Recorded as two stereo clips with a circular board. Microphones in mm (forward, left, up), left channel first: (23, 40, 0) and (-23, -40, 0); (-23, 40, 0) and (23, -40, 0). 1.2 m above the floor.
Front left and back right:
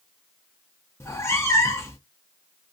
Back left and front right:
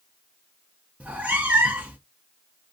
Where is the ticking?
I don't hear ticking.